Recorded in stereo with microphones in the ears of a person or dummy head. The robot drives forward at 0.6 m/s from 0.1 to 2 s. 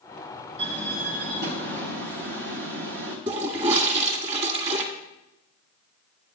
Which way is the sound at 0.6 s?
35° right (ahead or behind).